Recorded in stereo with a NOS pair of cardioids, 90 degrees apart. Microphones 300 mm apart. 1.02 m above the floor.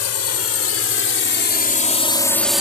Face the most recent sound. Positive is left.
turn(degrees=-5)